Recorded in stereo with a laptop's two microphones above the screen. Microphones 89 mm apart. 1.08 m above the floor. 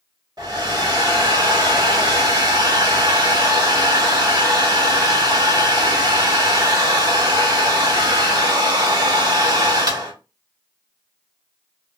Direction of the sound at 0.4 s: 50° right (ahead or behind).